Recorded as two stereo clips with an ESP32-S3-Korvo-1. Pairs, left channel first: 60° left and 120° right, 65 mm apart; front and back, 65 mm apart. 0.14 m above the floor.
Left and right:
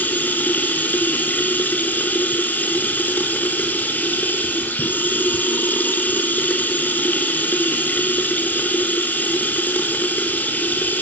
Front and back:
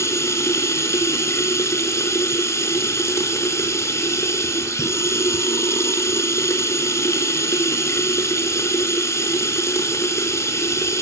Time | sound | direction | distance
0.0 | running water | 10° left | 1.0 m